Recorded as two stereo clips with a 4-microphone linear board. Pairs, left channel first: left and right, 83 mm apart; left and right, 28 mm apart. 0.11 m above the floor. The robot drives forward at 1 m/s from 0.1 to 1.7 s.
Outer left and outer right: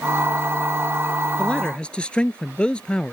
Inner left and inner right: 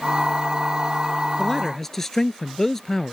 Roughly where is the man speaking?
Centre.